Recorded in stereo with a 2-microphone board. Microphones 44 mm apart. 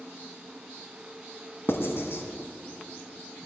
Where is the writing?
60° left (ahead or behind), 1.1 m.